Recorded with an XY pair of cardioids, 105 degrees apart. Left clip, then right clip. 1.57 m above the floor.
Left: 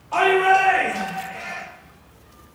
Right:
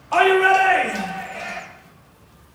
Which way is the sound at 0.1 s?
65° right.